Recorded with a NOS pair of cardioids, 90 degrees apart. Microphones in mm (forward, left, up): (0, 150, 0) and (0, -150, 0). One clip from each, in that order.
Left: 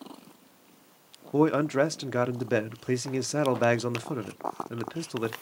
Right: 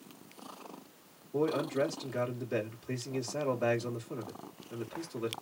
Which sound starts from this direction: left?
A man speaking, at 1.3 s.